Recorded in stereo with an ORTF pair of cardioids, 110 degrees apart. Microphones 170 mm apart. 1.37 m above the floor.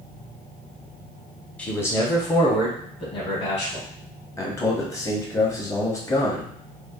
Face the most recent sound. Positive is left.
turn(degrees=20)